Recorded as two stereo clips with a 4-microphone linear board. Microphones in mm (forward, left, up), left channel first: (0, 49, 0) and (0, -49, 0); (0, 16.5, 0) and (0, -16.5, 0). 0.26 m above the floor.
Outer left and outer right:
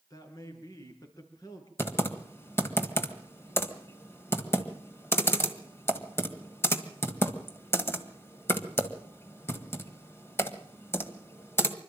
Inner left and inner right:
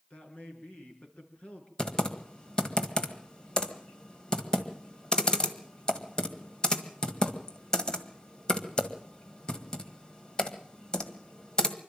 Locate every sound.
0.1 s a man speaking: 40° left (ahead or behind), 4 m
1.8 s typing on a keyboard: 25° left (ahead or behind), 1.7 m